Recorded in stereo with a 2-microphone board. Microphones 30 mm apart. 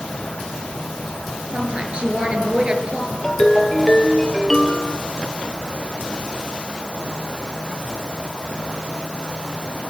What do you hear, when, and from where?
1.5 s a woman speaking: 35° right (ahead or behind), 4.5 m
3.2 s a ringtone: 20° left (ahead or behind), 2 m